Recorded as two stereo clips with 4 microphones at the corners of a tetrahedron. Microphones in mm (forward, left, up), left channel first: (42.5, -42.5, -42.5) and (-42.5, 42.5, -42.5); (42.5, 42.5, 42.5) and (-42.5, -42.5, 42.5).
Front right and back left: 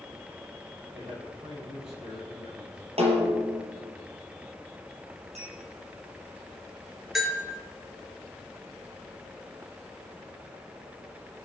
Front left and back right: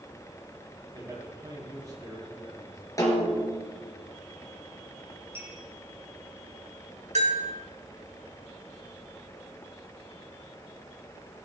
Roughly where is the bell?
Behind right.